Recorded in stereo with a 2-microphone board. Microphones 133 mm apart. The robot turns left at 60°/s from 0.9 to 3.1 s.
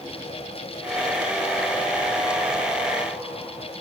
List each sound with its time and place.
Only background noise.